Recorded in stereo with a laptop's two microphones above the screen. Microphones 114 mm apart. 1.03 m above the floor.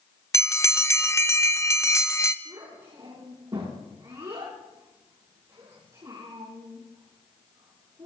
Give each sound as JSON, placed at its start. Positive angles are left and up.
{"t": 0.3, "sound": "a bell", "side_deg": 25, "distance_m": 0.6}
{"t": 2.5, "sound": "a child speaking", "side_deg": -40, "distance_m": 9.5}